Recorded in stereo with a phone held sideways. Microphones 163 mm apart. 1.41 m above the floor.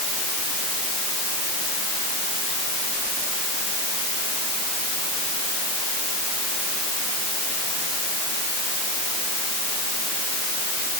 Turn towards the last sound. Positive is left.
No sound to turn to.